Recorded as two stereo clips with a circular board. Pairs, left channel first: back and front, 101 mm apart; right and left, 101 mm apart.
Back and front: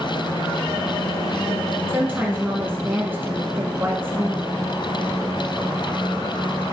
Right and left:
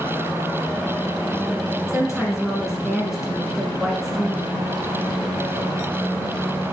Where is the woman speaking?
10° left, 1.0 m.